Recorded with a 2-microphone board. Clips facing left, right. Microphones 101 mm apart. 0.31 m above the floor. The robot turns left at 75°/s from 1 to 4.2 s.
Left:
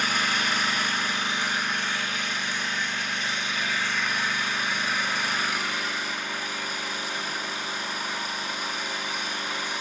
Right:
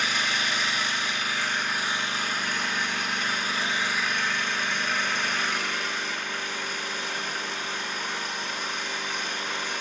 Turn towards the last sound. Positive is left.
turn(degrees=170)